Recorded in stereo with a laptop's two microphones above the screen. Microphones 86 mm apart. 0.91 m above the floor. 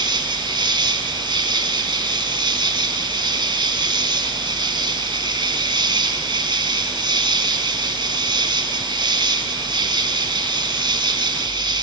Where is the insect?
65° right (ahead or behind), 1.6 m.